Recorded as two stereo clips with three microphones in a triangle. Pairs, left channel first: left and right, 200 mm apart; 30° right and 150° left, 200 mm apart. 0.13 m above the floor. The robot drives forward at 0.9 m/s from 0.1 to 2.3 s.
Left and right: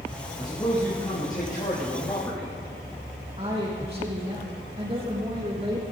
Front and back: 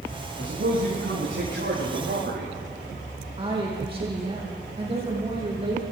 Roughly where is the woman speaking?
Behind right.